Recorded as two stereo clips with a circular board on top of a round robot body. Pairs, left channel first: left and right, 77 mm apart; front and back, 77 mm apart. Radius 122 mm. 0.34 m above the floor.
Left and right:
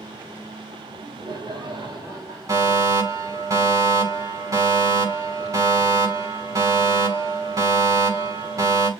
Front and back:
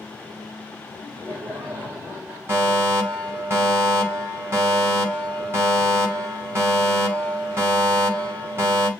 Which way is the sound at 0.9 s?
115° right.